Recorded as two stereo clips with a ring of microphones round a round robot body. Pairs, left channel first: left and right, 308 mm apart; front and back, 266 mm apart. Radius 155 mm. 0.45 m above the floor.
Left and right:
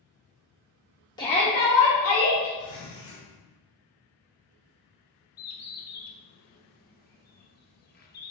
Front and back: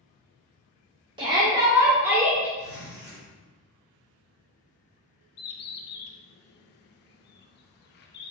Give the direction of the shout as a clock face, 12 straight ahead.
7 o'clock.